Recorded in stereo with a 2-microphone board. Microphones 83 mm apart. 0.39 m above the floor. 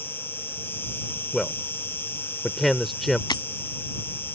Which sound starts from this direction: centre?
A man speaking, at 1.3 s.